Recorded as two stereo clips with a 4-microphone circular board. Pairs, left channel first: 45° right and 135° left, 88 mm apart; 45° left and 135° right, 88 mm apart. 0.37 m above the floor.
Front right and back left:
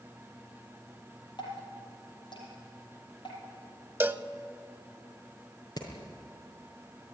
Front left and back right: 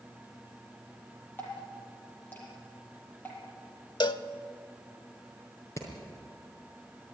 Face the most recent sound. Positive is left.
turn(degrees=-10)